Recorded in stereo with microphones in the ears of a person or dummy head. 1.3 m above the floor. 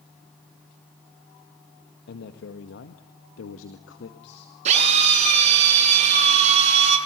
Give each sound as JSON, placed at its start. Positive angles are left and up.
{"t": 2.1, "sound": "a man speaking", "side_deg": 65, "distance_m": 1.8}
{"t": 4.7, "sound": "a drill", "side_deg": -45, "distance_m": 8.5}